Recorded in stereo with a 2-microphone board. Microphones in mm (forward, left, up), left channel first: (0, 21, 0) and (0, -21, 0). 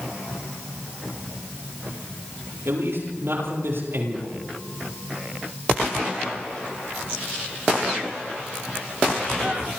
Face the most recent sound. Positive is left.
turn(degrees=-70)  # may be behind; listen again after turning